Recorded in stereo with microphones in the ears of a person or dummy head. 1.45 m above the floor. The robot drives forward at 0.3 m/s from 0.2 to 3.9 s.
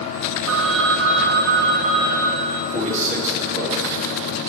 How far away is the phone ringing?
About 0.8 m.